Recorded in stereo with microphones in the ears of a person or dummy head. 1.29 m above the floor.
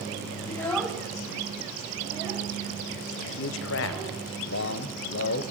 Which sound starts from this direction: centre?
A child speaking, at 0.5 s.